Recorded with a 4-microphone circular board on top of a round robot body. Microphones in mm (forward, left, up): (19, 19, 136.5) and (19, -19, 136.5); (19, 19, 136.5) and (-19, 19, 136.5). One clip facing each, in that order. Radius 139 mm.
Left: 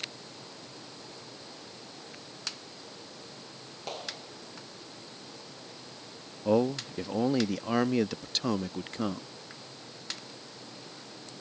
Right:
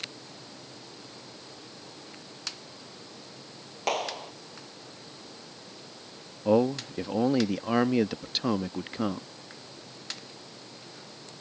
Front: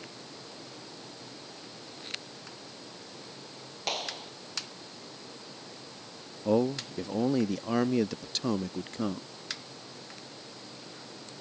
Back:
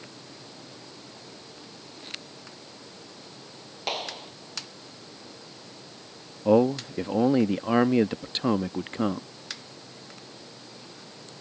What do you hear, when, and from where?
3.9 s a clap: 100° right
6.5 s a man speaking: 165° right